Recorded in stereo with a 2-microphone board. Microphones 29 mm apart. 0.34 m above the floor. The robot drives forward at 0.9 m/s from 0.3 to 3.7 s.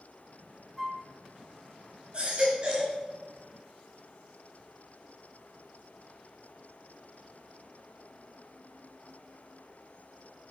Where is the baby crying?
30° right (ahead or behind), 3.5 m; by 3.0 s 25° right (ahead or behind), 4 m.